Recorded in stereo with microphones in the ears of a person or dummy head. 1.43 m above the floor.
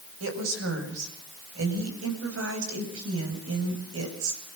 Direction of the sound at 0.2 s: 80° right.